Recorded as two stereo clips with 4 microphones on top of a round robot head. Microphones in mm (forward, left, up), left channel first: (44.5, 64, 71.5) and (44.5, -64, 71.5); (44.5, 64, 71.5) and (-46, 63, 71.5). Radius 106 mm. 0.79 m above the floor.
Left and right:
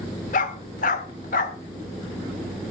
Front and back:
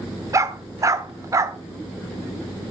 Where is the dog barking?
125° left, 0.9 m.